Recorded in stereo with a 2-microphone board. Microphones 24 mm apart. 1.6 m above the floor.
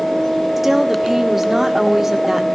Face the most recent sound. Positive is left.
turn(degrees=-10)  # may be behind; listen again after turning